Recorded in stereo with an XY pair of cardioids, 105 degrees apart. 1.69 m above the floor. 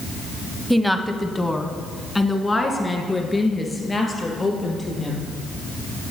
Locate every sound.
0.7 s a woman speaking: 5° right, 0.7 m; by 5.3 s 30° left, 3 m